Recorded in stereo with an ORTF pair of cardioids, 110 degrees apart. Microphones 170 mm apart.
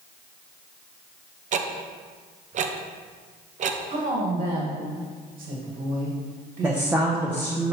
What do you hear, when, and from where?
1.5 s ticking: 45° right, 0.6 m
3.9 s a woman speaking: 70° right, 1.9 m
6.6 s a woman speaking: 10° right, 0.9 m